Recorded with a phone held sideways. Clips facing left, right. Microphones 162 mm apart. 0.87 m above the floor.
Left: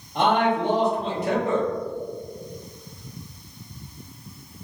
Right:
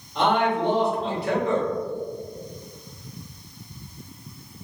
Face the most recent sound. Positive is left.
turn(degrees=45)  # may be behind; listen again after turning